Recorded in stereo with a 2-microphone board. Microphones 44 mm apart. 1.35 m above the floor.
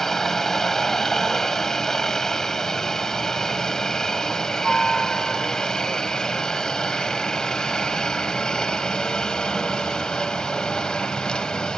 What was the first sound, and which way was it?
A helicopter, 10° left (ahead or behind).